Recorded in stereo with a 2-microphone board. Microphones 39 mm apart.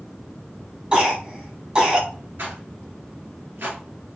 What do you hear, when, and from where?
0.9 s a cough: 25° right (ahead or behind), 1.1 m
2.4 s a rattle: 75° right (ahead or behind), 1.5 m